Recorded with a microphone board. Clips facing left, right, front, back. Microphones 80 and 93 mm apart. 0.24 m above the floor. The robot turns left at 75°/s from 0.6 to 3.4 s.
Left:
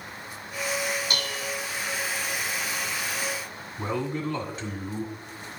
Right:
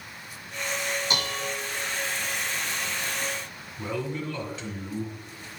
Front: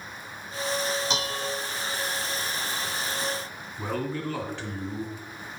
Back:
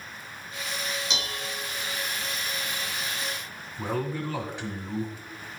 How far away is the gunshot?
No gunshot in this recording.